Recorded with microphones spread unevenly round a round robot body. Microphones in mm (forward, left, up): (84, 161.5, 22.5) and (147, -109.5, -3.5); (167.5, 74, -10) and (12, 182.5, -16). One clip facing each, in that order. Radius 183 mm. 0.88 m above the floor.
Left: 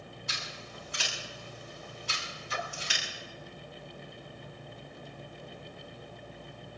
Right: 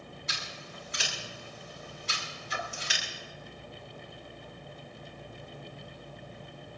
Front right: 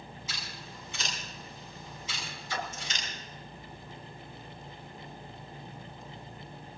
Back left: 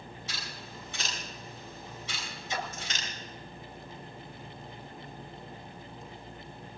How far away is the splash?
About 4 m.